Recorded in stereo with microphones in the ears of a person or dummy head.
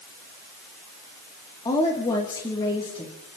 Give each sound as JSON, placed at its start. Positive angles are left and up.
{"t": 1.6, "sound": "a woman speaking", "side_deg": 25, "distance_m": 2.5}